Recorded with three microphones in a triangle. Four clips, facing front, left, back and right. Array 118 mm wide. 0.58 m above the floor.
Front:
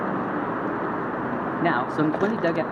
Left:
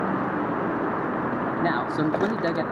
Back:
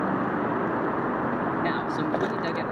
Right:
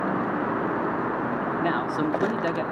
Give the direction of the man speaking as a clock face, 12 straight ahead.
12 o'clock.